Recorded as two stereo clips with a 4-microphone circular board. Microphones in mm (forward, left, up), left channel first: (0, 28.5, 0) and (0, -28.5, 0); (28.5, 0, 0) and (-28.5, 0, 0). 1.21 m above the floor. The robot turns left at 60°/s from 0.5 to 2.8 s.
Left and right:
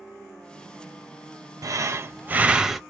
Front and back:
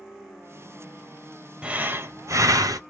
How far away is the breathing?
About 0.8 m.